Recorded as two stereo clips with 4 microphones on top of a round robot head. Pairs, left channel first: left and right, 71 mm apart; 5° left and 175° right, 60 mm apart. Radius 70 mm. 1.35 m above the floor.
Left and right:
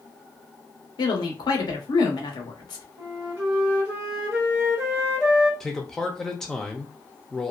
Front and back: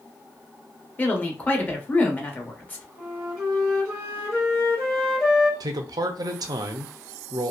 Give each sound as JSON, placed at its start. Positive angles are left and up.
{"t": 1.0, "sound": "a woman speaking", "azimuth_deg": 65, "distance_m": 0.9}
{"t": 3.0, "sound": "a flute", "azimuth_deg": -80, "distance_m": 1.1}
{"t": 5.6, "sound": "a man speaking", "azimuth_deg": 175, "distance_m": 0.5}